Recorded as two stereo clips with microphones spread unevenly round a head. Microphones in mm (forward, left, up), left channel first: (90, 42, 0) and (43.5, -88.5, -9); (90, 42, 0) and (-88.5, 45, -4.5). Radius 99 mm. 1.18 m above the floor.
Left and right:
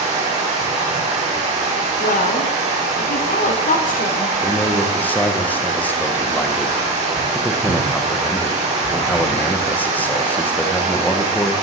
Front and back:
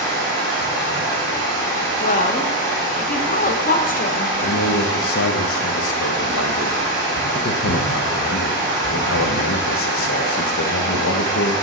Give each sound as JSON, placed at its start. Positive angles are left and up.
{"t": 0.0, "sound": "running water", "azimuth_deg": -70, "distance_m": 1.3}
{"t": 2.0, "sound": "a woman speaking", "azimuth_deg": 45, "distance_m": 0.7}
{"t": 4.4, "sound": "a man speaking", "azimuth_deg": -10, "distance_m": 0.6}